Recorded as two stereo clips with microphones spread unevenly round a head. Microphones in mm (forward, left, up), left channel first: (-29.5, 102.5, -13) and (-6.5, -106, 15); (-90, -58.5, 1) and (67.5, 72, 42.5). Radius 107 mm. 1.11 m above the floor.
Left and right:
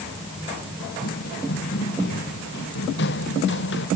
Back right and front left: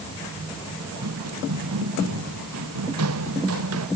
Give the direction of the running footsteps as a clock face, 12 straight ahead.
10 o'clock.